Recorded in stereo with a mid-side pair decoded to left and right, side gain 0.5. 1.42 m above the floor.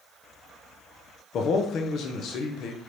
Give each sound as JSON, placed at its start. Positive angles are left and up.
{"t": 1.3, "sound": "a man speaking", "azimuth_deg": 60, "distance_m": 0.8}